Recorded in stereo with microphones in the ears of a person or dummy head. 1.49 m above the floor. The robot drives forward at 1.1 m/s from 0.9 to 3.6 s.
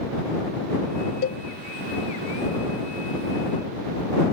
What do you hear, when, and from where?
1.2 s a cowbell: 55° left (ahead or behind); by 1.4 s 60° left (ahead or behind)